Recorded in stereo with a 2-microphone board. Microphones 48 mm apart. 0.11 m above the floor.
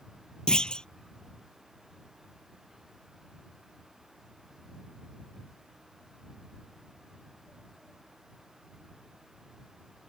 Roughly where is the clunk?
Centre.